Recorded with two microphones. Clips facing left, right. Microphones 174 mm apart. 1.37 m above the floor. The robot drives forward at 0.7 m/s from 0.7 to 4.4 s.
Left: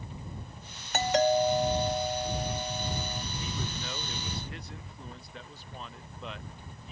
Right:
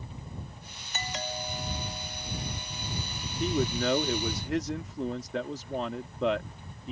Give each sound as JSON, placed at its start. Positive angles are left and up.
{"t": 0.9, "sound": "a doorbell", "side_deg": 65}
{"t": 3.4, "sound": "a man speaking", "side_deg": -70}